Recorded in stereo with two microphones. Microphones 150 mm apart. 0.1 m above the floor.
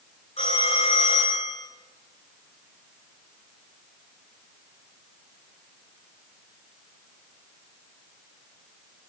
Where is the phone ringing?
45° left (ahead or behind), 7 m.